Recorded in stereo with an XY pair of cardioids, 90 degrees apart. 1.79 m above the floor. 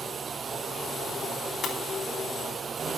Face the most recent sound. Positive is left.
turn(degrees=60)